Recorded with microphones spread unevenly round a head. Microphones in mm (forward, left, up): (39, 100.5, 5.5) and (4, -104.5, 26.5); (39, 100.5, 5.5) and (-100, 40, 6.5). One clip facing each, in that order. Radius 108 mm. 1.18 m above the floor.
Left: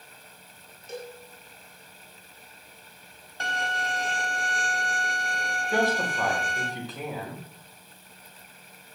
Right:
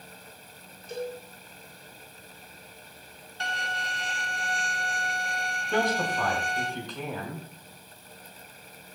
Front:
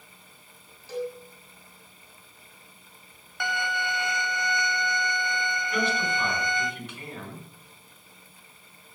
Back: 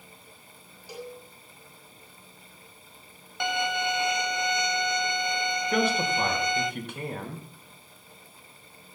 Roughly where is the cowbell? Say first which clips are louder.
Right 5 dB, front 8 dB; behind left.